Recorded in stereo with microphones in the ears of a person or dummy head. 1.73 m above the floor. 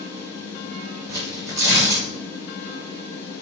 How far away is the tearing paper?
About 1.9 m.